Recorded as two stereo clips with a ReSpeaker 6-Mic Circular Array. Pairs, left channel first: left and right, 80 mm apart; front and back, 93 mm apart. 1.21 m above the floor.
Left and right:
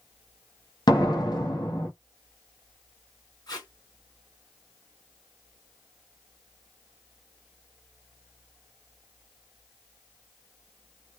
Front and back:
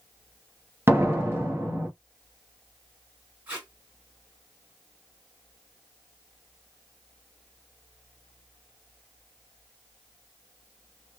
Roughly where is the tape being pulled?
Left.